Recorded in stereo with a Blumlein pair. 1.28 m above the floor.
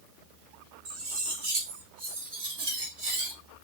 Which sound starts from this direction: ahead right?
Cutlery clinking, at 0.8 s.